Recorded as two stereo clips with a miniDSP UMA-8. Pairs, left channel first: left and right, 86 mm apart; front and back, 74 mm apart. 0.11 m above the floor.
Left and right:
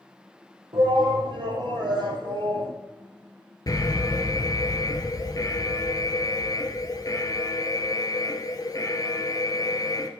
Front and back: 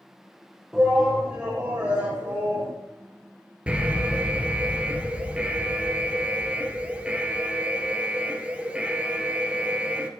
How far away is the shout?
About 3.5 m.